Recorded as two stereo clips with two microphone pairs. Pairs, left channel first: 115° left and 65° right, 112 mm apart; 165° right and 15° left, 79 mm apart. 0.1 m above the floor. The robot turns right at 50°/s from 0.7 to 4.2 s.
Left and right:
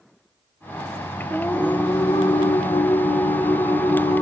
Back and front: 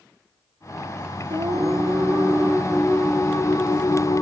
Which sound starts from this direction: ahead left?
Singing, at 1.3 s.